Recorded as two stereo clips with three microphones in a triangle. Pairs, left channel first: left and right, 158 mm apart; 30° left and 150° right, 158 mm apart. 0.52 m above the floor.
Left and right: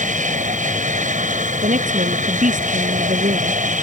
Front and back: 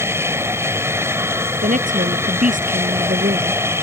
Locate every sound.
0.0 s an aircraft: 80° right
1.5 s a woman speaking: 120° right